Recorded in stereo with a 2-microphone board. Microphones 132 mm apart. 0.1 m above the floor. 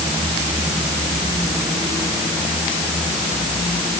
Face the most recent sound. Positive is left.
No sound to turn to.